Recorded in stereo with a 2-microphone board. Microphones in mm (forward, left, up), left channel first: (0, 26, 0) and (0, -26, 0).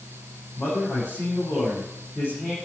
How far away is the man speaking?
About 7.5 m.